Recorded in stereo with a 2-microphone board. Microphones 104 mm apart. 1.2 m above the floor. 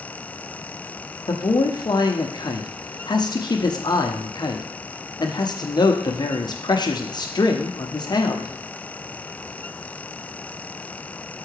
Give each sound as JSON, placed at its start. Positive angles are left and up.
{"t": 1.3, "sound": "a man speaking", "side_deg": 40, "distance_m": 0.7}